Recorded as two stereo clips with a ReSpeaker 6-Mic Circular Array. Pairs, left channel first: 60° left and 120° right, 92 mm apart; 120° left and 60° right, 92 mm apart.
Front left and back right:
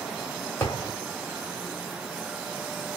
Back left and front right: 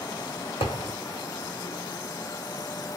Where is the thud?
125° left, 1.7 m.